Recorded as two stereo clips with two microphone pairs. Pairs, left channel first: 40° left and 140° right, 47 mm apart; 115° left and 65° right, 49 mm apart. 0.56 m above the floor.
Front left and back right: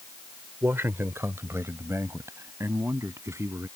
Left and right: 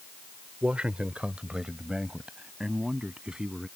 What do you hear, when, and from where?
0.6 s a man speaking: 120° right; by 3.7 s 135° right